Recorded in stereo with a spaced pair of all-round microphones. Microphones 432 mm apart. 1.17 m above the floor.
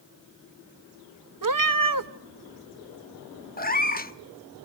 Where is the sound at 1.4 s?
50° right (ahead or behind), 0.6 m.